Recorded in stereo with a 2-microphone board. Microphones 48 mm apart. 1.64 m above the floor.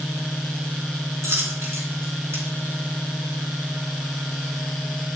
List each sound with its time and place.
1.2 s a dropped coin: 65° right (ahead or behind), 4 m